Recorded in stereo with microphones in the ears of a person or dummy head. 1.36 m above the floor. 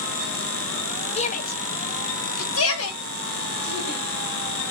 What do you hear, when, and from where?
1.2 s a shout: 30° left (ahead or behind), 0.7 m; by 4.0 s 85° left, 2.5 m